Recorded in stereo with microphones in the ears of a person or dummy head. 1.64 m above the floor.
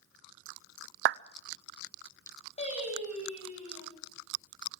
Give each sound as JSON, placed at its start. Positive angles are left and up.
{"t": 1.1, "sound": "a clap", "side_deg": -60, "distance_m": 0.5}
{"t": 2.6, "sound": "singing", "side_deg": 40, "distance_m": 7.0}